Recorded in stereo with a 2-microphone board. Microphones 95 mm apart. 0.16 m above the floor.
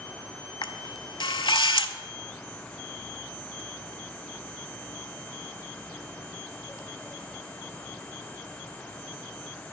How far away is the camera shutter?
About 0.5 m.